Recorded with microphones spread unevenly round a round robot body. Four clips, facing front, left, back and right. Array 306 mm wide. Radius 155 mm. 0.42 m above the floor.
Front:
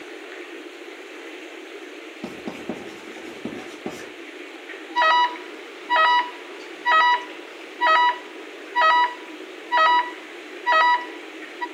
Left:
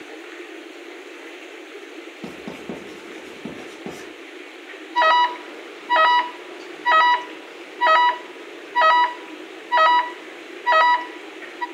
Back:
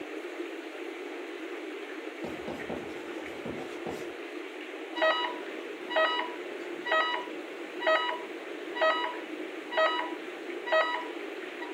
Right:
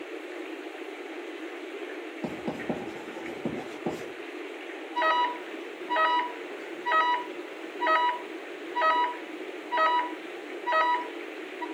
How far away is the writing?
About 7.5 m.